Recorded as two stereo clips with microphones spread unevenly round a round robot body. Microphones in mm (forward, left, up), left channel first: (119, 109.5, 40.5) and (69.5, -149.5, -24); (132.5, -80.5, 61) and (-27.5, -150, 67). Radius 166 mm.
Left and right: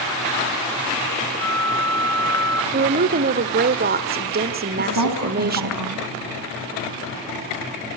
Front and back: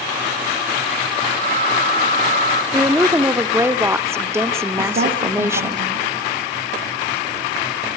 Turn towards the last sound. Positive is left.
turn(degrees=-130)